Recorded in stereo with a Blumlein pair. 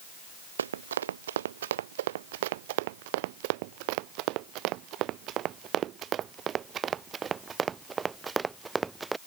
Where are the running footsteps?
65° right; by 9.2 s 10° right.